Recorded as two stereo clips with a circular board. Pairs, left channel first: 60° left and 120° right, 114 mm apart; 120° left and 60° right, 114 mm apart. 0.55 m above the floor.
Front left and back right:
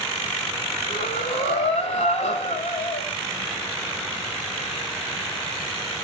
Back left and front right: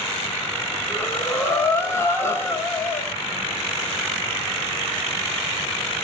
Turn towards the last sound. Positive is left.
turn(degrees=55)